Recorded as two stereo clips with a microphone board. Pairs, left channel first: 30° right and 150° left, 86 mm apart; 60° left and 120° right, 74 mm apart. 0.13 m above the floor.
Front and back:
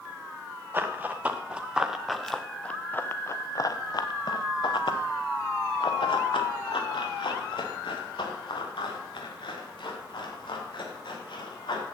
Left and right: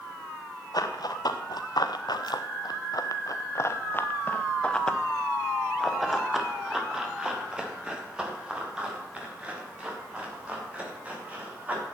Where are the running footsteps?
85° left, 1.8 m; by 11.8 s 50° right, 5.5 m.